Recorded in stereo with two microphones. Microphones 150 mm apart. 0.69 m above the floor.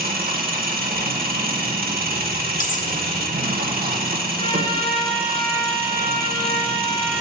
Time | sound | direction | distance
0.0 | an engine running | 85° right | 1.0 m
2.6 | cutlery clinking | 60° left (ahead or behind) | 0.6 m
4.4 | a trumpet | 35° left (ahead or behind) | 1.9 m